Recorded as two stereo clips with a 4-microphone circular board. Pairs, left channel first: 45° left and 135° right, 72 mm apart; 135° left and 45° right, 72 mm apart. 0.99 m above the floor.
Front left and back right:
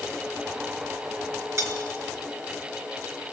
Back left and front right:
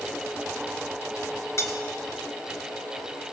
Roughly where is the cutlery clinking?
Behind.